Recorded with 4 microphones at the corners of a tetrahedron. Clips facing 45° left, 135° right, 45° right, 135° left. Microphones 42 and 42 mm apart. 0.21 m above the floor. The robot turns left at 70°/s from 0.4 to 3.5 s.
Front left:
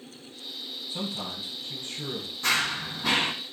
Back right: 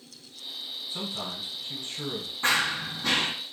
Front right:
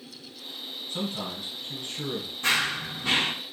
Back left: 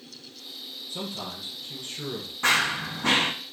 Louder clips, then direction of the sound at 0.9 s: Front left 1 dB, front right 3 dB; 50° right.